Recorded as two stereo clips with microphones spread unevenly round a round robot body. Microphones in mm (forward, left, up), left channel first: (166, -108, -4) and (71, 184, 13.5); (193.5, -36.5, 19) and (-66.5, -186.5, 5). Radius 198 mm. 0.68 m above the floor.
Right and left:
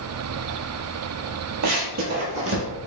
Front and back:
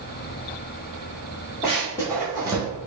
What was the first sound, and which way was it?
Running footsteps, 100° left.